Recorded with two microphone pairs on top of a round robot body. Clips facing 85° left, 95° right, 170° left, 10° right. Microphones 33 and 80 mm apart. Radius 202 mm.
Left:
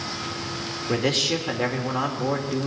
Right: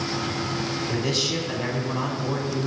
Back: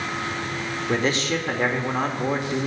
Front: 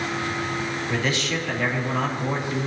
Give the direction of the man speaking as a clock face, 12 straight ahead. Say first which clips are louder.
Left 5 dB, back 5 dB; 8 o'clock.